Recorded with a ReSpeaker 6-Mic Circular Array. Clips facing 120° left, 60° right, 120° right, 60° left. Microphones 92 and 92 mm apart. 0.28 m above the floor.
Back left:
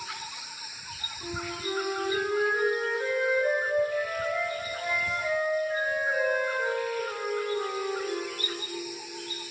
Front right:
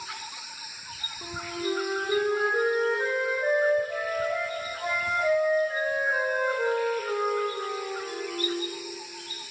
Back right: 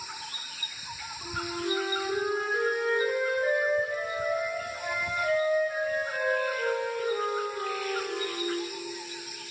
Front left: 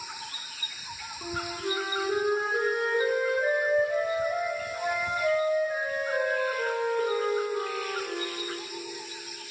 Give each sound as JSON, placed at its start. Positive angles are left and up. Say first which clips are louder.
{"t": 1.2, "sound": "a flute", "louder": "front right 3 dB, even", "azimuth_deg": 0, "distance_m": 4.0}